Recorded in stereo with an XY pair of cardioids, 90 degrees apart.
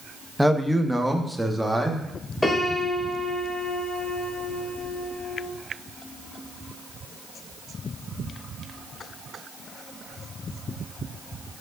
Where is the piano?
20° left, 2 m.